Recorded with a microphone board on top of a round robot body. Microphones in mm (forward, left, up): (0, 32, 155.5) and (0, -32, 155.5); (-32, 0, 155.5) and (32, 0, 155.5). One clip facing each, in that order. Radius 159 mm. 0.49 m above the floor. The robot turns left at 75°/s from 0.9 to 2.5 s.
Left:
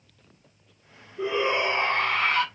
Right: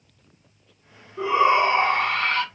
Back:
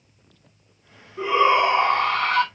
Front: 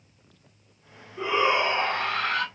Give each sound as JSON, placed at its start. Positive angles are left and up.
{"t": 1.2, "sound": "a shout", "azimuth_deg": -105, "distance_m": 5.0}